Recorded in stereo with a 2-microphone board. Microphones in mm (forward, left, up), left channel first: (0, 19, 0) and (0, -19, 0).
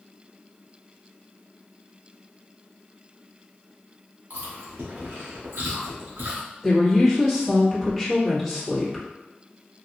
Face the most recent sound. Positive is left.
turn(degrees=-5)  # may be behind; listen again after turning